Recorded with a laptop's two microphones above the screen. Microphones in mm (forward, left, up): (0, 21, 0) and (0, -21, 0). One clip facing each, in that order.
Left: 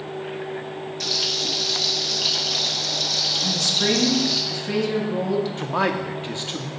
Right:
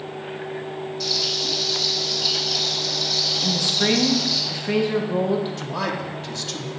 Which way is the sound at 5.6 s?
25° left (ahead or behind).